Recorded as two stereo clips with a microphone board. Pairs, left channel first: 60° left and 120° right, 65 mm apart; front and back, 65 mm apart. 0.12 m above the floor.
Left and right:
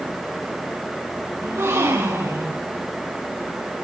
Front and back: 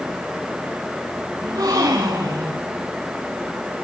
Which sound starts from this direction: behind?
A gasp, at 1.4 s.